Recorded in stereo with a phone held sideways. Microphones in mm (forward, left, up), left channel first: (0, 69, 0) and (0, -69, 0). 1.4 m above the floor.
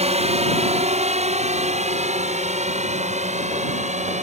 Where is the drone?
50° right (ahead or behind); by 4.2 s 55° right (ahead or behind).